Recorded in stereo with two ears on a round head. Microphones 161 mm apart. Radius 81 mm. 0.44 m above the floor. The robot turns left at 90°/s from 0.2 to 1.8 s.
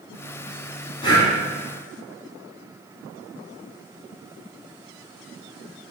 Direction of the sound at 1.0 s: 30° left (ahead or behind).